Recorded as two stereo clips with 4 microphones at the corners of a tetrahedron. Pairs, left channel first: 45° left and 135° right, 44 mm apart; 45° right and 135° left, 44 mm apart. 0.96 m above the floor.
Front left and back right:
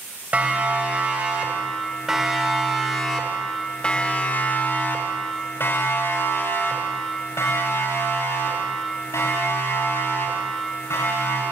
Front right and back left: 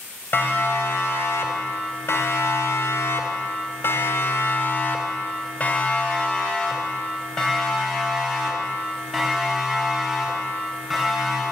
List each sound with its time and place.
0.3 s a siren: 80° right, 5.5 m; by 11.4 s 45° left, 10.5 m